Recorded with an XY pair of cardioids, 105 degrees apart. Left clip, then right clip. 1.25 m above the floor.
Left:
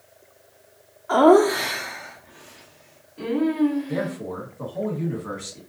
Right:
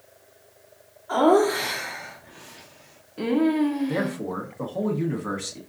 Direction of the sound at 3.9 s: 35° right.